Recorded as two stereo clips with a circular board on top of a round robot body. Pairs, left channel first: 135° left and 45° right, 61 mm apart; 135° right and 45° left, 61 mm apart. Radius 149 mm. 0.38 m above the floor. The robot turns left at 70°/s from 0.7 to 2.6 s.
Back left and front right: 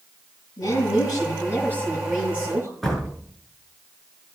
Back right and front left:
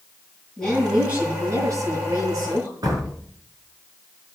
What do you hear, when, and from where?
0.6 s a woman speaking: 145° left, 9 m; by 2.7 s 10° left, 9 m
2.8 s a door slam: 50° left, 6.5 m